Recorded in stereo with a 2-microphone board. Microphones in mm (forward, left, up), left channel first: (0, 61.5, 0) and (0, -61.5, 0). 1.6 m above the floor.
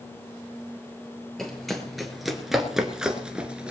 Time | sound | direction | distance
1.4 | running footsteps | centre (ahead or behind) | 2 m